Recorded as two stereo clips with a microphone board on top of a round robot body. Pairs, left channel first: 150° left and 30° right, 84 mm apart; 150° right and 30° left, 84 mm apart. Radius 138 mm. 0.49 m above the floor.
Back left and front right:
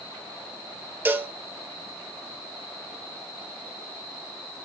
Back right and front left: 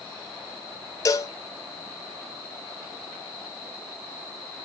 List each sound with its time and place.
1.1 s a cowbell: 100° right, 1.1 m